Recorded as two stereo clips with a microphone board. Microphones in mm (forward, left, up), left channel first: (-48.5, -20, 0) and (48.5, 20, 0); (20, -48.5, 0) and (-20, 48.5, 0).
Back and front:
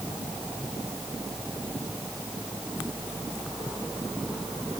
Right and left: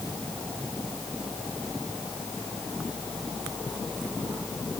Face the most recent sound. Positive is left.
No sound to turn to.